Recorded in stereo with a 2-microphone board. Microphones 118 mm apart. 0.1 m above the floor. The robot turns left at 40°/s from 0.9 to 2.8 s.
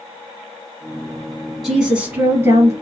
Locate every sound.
1.6 s a woman speaking: 5° right, 1.9 m; by 2.7 s 45° right, 1.9 m